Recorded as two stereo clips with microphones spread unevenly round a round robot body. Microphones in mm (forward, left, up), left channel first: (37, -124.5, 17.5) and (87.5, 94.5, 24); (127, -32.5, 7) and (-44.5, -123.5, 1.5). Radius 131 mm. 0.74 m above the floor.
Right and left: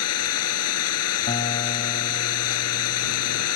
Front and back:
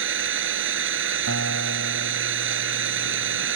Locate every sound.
0.0 s an engine running: 140° right
1.3 s a guitar: 170° right